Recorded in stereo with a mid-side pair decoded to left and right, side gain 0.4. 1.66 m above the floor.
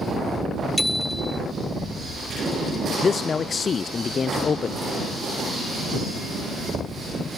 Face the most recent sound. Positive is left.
turn(degrees=50)